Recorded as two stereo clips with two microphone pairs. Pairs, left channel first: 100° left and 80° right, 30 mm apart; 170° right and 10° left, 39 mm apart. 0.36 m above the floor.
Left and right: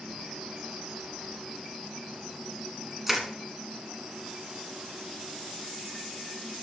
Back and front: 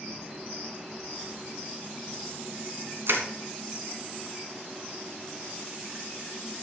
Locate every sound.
3.1 s crushing: straight ahead, 2 m